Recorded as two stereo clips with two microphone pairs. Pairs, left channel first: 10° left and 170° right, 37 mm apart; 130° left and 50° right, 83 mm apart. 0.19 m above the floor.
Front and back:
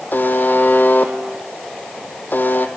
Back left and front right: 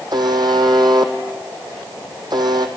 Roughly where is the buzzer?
Ahead.